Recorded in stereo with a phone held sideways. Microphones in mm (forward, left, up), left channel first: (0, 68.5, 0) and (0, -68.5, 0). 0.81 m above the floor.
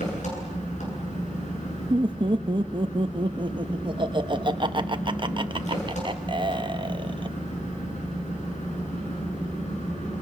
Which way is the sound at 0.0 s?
60° left (ahead or behind).